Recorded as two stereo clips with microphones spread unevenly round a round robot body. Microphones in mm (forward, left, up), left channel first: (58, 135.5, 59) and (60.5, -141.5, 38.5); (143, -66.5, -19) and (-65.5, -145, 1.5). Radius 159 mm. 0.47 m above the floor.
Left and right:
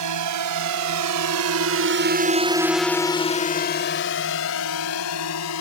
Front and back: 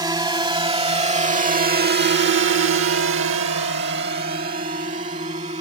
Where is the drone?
85° right; by 5.6 s 130° left.